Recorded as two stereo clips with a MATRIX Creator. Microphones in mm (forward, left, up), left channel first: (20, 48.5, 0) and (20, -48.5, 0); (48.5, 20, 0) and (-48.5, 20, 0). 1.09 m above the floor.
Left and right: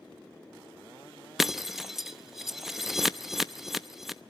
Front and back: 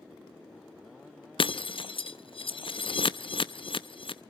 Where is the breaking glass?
5° right, 0.6 m.